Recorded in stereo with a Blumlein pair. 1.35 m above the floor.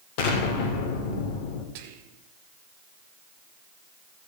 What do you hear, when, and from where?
0.2 s an explosion: 45° left, 2 m
1.8 s whispering: 50° right, 1.6 m